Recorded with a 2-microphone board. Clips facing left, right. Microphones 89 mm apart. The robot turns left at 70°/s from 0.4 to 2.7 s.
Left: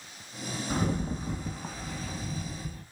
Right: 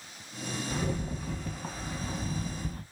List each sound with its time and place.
0.7 s a rattle: 65° left, 0.5 m; by 2.8 s 75° right, 0.5 m